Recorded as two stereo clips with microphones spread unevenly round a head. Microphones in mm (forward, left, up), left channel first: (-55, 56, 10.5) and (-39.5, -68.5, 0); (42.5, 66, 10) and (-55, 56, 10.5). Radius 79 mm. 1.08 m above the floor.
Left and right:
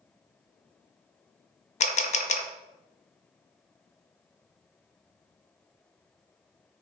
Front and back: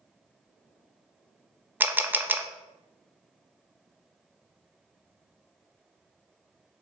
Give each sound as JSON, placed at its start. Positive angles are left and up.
{"t": 1.8, "sound": "a camera shutter", "azimuth_deg": 115, "distance_m": 0.6}